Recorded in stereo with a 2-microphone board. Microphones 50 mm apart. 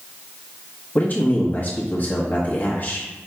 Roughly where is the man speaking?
Left.